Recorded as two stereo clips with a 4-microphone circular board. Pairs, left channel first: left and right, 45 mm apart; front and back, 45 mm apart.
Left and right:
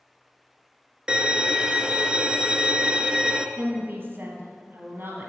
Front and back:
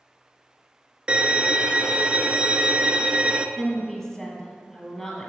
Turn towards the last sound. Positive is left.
turn(degrees=-70)